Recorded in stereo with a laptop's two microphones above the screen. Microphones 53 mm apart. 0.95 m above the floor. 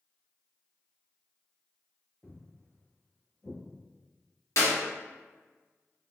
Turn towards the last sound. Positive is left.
turn(degrees=60)  # may be behind; listen again after turning